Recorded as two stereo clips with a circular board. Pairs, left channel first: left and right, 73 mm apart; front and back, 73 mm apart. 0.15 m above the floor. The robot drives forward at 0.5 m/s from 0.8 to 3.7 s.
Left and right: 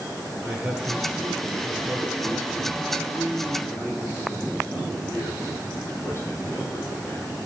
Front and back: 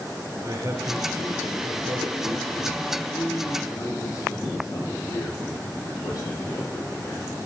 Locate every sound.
0.4 s a man speaking: 160° right, 2 m; by 2.8 s 170° right, 3 m
3.1 s a man speaking: 30° left, 5 m; by 7.4 s 35° left, 5 m